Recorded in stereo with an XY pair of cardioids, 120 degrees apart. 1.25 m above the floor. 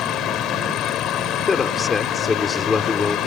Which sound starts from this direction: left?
A fan, at 0.0 s.